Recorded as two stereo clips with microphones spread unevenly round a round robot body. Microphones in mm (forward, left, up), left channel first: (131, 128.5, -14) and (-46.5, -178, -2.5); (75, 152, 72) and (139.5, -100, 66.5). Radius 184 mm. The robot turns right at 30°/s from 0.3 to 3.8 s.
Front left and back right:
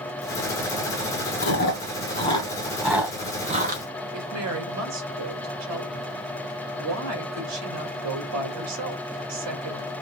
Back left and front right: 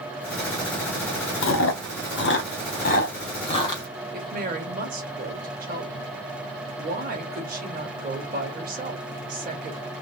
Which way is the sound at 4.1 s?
110° right.